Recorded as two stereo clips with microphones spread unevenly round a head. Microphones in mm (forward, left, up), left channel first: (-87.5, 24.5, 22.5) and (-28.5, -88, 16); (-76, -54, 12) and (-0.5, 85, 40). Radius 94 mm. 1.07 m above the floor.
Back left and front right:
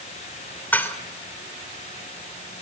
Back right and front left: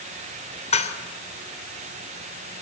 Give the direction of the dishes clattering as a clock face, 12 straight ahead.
6 o'clock.